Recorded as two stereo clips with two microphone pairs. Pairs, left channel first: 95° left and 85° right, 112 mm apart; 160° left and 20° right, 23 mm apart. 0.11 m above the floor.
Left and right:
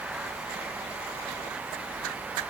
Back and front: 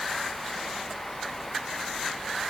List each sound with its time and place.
Only background noise.